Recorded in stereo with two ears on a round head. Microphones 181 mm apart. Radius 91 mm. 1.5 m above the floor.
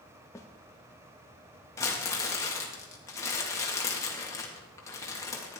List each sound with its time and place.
0.3 s a snare drum: 15° left (ahead or behind), 1.0 m
1.8 s crumpling: 15° left (ahead or behind), 1.8 m